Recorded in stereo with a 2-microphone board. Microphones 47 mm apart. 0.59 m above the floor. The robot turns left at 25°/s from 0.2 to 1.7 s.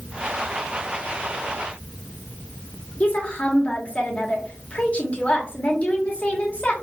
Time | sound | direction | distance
3.0 | a woman speaking | 30° left (ahead or behind) | 1.1 m